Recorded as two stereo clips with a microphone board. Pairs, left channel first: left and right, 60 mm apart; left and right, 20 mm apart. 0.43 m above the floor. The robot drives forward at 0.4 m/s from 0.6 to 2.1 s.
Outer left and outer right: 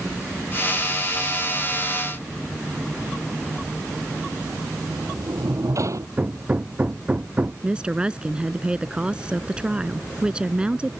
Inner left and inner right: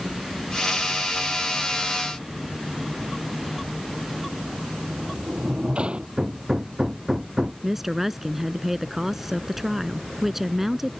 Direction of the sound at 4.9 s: 60° right (ahead or behind).